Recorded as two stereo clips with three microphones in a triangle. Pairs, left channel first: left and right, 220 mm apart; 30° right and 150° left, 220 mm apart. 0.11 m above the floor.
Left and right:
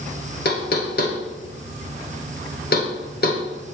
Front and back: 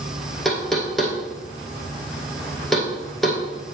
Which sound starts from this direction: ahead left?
Knocking, at 0.5 s.